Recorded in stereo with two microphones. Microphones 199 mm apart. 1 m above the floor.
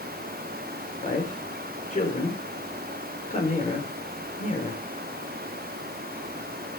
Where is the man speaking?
40° left (ahead or behind), 3 m.